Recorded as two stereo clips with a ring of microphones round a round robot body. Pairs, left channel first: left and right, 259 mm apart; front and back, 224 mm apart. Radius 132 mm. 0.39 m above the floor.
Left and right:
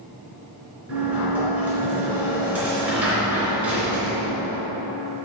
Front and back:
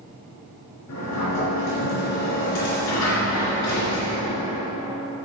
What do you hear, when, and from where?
0.9 s a sliding door: 5° right, 3 m